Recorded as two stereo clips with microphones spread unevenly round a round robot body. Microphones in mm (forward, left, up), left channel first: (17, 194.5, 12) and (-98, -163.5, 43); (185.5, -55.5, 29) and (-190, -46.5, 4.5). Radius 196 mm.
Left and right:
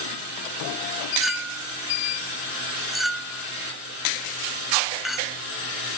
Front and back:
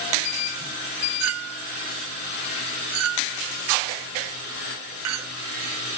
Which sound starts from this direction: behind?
A clink, at 1.2 s.